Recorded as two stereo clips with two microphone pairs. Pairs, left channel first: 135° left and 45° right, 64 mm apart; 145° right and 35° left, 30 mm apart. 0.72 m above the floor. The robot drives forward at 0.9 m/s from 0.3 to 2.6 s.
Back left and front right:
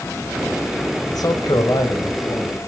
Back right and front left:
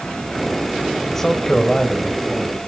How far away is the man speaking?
About 2.5 m.